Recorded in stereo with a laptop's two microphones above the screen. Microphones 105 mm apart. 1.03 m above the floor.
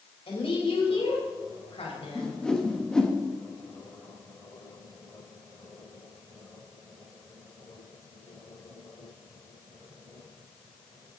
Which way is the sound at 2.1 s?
10° left (ahead or behind).